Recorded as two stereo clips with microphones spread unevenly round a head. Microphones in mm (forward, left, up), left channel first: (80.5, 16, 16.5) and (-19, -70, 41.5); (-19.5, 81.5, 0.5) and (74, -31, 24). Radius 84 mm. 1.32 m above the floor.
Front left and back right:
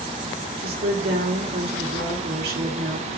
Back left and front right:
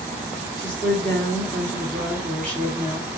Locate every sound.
0.6 s a woman speaking: 145° right, 2.0 m